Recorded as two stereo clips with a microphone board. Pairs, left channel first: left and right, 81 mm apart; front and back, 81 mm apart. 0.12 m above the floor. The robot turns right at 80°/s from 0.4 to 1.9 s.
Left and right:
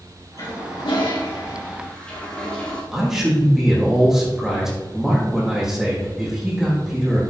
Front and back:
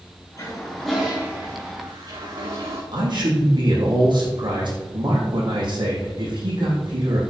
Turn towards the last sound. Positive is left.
turn(degrees=-175)